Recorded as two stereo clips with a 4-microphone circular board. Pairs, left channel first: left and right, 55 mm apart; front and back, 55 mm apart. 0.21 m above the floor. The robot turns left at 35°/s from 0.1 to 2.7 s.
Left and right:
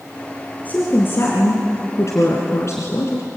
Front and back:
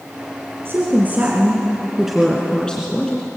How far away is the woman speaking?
About 2.5 m.